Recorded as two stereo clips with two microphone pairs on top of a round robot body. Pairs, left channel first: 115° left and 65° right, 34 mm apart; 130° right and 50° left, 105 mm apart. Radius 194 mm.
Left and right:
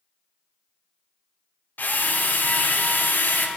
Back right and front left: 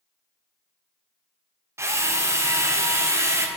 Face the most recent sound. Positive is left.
turn(degrees=110)